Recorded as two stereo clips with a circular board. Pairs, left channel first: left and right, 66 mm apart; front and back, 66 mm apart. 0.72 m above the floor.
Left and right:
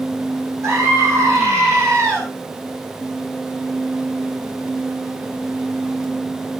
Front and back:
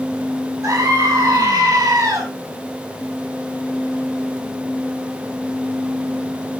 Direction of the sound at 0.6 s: 135° right.